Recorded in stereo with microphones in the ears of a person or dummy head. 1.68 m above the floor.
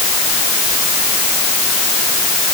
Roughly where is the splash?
No splash in this recording.